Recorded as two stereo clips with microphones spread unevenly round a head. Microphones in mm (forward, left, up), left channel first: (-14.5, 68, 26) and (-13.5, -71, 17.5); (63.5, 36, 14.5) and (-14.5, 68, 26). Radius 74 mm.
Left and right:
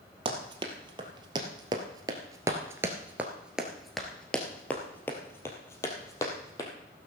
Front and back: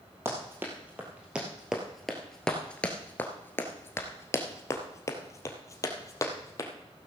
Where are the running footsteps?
140° right, 2.5 m; by 6.7 s 25° left, 2.5 m.